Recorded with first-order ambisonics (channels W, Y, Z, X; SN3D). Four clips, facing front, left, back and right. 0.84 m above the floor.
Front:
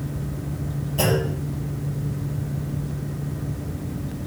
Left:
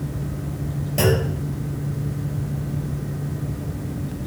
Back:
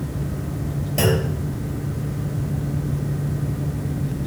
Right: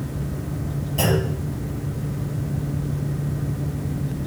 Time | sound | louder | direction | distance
1.0 | a clunk | left 2 dB, back 1 dB | 135° left | 3.5 m